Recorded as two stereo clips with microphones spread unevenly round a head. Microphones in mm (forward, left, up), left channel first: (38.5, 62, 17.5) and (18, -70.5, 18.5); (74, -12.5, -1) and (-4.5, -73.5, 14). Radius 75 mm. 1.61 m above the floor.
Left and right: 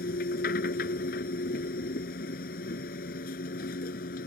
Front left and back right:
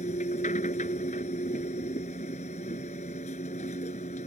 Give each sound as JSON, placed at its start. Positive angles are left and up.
{"t": 0.0, "sound": "a machine running", "azimuth_deg": 75}